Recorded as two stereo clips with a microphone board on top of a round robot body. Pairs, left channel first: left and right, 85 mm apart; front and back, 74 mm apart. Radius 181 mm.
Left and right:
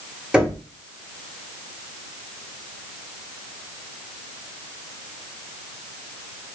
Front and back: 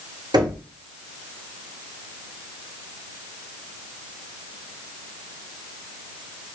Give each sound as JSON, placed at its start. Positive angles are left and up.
{"t": 0.3, "sound": "knocking", "azimuth_deg": -170, "distance_m": 2.5}